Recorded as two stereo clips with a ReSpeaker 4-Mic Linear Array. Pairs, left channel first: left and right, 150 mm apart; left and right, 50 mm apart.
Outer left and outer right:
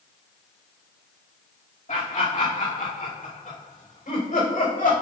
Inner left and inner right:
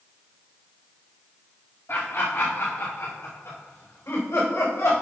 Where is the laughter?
60° left (ahead or behind), 2 m; by 4.9 s 70° left (ahead or behind), 5 m.